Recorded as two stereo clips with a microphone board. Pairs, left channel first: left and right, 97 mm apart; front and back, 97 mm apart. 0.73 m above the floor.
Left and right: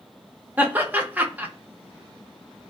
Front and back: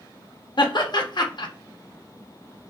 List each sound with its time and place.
0.6 s laughter: 20° right, 0.7 m